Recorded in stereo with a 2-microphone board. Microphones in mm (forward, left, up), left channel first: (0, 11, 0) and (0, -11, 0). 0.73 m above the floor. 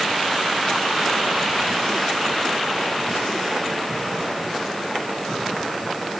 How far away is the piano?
No piano in this recording.